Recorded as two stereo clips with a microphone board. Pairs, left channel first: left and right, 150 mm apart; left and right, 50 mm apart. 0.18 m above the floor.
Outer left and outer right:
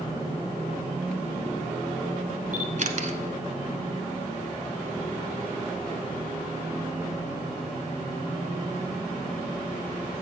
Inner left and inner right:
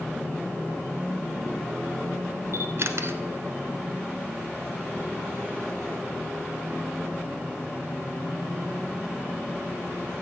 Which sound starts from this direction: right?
A camera shutter, at 2.5 s.